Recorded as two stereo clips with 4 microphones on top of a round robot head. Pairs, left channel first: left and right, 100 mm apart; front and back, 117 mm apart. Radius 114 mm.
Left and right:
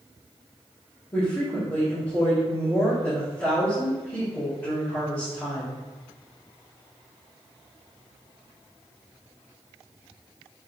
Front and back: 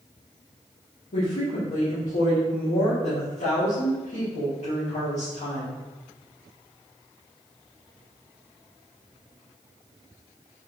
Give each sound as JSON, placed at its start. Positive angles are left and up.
{"t": 1.1, "sound": "a woman speaking", "azimuth_deg": 25, "distance_m": 2.0}